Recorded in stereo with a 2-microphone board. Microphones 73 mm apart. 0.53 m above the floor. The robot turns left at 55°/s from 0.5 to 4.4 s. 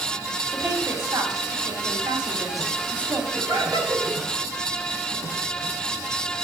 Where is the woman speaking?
15° right, 3 m; by 3.2 s 165° right, 3 m.